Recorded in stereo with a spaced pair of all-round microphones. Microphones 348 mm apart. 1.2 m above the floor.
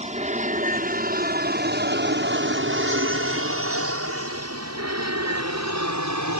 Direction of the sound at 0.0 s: 20° right (ahead or behind).